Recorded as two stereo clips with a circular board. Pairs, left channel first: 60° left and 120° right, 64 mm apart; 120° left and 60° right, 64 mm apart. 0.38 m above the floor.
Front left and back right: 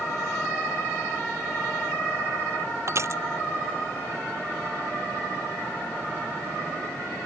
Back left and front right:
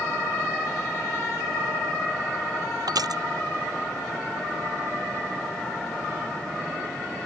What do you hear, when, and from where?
2.9 s crushing: 75° right